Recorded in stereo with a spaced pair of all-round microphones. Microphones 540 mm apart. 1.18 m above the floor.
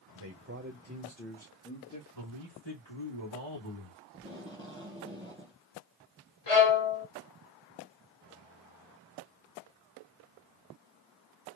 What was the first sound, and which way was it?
A man speaking, 45° right (ahead or behind).